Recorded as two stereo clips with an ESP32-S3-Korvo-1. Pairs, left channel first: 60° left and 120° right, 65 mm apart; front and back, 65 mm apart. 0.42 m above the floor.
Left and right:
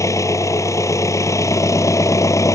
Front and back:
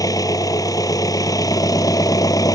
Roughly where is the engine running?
Ahead left.